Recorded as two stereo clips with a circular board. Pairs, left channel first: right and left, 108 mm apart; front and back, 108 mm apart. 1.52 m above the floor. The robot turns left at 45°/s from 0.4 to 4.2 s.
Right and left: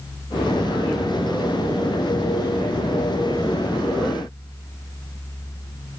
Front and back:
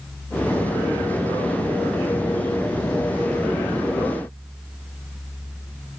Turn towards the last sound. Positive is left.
No sound to turn to.